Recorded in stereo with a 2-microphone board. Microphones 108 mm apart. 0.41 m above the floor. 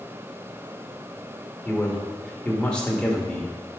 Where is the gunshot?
I don't hear a gunshot.